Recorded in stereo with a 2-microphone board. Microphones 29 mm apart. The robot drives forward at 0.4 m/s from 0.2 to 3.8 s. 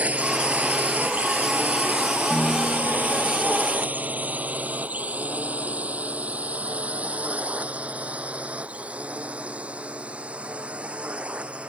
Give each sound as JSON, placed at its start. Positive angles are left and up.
{"t": 0.0, "sound": "a drone", "side_deg": -55}
{"t": 2.3, "sound": "a piano", "side_deg": 60}